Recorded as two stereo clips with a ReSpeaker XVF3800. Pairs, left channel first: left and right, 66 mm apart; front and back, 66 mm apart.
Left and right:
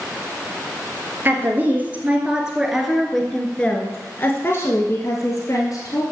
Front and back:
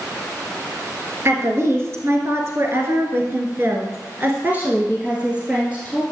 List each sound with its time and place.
1.2 s a woman speaking: 140° right, 2.5 m; by 6.0 s 105° left, 2.5 m